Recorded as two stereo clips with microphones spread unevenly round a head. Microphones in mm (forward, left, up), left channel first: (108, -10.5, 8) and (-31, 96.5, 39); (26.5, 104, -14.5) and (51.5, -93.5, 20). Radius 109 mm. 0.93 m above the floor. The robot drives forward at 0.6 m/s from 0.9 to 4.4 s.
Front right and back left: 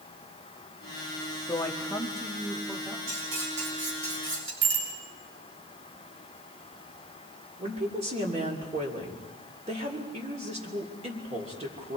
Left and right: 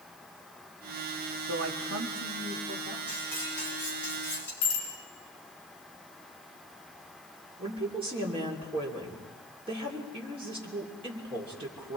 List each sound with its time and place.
1.5 s a man speaking: 115° right, 1.7 m; by 3.0 s 135° right, 2 m
3.1 s cutlery clinking: straight behind, 5 m
4.6 s a bicycle bell: 130° left, 7.5 m
7.6 s a woman speaking: 155° right, 3 m